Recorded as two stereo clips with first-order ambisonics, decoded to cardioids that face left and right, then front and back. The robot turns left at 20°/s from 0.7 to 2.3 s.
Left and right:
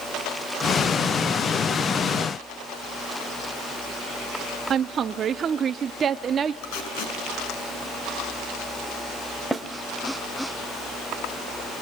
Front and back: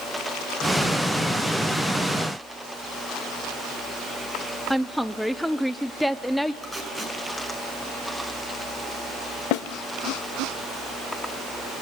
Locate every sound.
4.7 s a woman speaking: 85° right, 0.7 m
6.6 s tape being pulled: 85° left, 6.5 m
9.5 s a snare drum: 10° right, 0.9 m